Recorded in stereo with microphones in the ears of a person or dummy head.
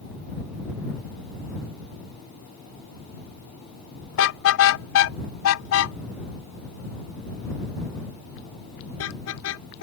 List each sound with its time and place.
4.1 s a car horn: 70° left (ahead or behind); by 9.8 s 75° left (ahead or behind)